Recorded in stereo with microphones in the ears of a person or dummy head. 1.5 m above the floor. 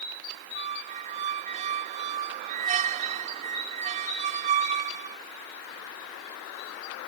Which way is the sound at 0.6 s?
35° right (ahead or behind).